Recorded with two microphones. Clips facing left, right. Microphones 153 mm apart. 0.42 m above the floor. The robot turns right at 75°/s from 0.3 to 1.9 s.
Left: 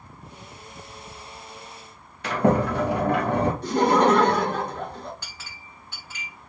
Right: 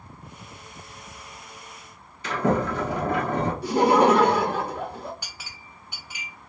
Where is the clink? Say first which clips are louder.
Even; 15° right (ahead or behind), 1.0 m.